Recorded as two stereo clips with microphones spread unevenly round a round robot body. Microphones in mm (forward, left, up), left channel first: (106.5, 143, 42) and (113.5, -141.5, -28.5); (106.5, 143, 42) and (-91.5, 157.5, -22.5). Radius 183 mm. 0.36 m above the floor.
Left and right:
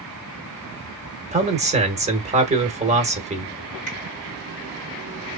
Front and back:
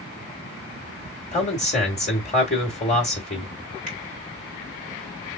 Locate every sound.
1.3 s a man speaking: 70° right, 1.3 m
3.9 s a finger snap: 145° right, 2.5 m